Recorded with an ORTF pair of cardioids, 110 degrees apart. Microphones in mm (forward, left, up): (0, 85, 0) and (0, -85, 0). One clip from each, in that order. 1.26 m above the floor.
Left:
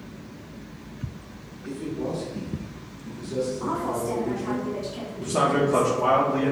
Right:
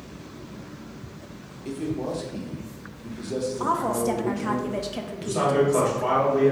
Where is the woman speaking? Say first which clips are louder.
Right 3 dB; 50° right, 0.9 m.